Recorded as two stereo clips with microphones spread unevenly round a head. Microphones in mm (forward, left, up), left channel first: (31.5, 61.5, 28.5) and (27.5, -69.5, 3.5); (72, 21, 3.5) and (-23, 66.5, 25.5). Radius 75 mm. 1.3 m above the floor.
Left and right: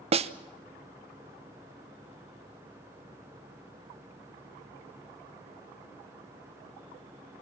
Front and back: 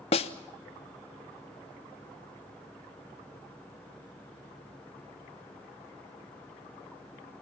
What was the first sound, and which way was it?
A snare drum, 55° right.